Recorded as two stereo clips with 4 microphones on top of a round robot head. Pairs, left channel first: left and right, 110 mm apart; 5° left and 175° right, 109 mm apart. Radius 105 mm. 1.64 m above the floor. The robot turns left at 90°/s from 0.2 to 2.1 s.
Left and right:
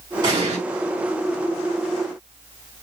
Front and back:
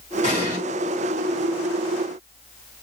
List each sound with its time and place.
0.2 s an explosion: 40° right, 2 m; by 0.6 s 75° right, 2 m